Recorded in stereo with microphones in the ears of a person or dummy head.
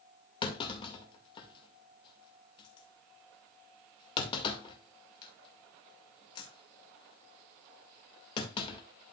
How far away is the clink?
I don't hear a clink.